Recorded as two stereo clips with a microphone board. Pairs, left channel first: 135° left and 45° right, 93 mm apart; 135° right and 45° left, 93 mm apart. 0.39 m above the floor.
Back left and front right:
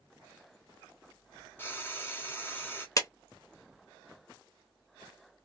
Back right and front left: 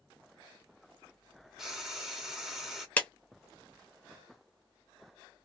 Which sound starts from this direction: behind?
A clap, at 3.0 s.